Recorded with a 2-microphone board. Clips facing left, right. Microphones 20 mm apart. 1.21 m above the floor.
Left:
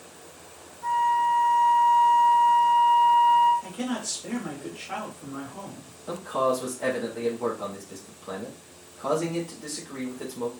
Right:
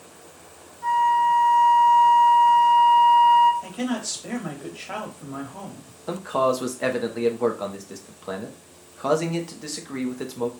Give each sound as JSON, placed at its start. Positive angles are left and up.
{"t": 0.8, "sound": "a flute", "side_deg": -45, "distance_m": 1.1}
{"t": 3.6, "sound": "a man speaking", "side_deg": -45, "distance_m": 1.4}
{"t": 6.1, "sound": "a man speaking", "side_deg": -55, "distance_m": 0.8}